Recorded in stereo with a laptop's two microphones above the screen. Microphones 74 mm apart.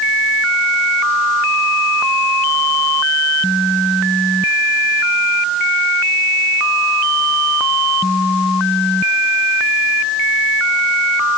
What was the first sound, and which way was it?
Only background noise.